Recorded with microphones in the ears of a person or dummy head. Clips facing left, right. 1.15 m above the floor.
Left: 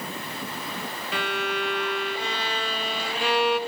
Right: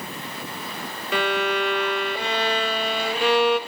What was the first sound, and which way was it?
A violin, 50° right (ahead or behind).